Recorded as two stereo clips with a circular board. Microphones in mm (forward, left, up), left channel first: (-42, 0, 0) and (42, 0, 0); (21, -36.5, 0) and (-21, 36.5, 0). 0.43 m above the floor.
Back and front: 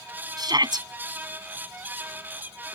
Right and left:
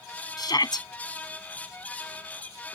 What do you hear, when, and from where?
0.4 s a shout: 25° right